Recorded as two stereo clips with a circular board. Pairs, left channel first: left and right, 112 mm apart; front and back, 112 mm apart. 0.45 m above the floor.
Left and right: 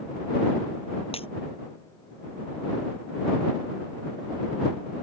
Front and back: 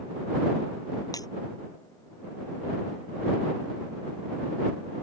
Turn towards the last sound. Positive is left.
turn(degrees=55)